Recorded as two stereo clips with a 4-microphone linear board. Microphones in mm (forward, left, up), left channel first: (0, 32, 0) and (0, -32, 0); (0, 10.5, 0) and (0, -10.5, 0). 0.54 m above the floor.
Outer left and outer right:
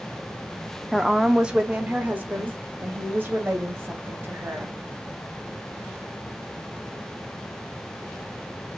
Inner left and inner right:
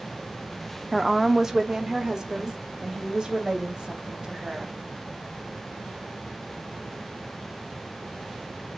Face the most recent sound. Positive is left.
turn(degrees=-35)  # may be behind; listen again after turning